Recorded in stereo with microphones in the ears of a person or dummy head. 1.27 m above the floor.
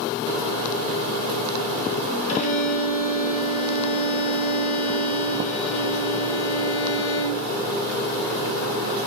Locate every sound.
2.3 s a violin: 45° left (ahead or behind), 1.1 m